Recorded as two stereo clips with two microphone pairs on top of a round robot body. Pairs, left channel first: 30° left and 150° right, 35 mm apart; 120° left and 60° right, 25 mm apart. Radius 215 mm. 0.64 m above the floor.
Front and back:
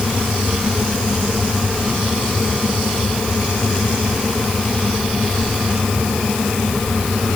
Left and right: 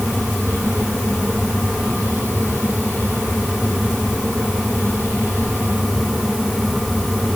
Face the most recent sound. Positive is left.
No sound to turn to.